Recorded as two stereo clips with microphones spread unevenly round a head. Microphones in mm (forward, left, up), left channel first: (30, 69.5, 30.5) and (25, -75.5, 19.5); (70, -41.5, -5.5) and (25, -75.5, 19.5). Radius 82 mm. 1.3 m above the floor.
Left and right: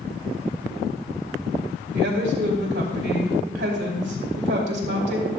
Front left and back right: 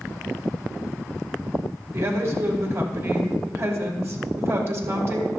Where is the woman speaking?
100° right, 3 m.